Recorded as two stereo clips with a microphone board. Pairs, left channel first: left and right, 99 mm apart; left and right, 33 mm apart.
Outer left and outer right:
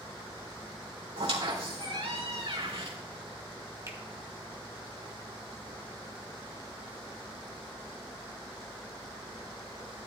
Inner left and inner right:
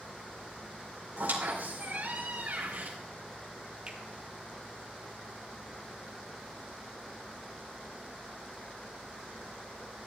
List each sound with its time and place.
1.2 s a squeak: 75° right (ahead or behind), 2.5 m
3.9 s a finger snap: 35° right (ahead or behind), 1.5 m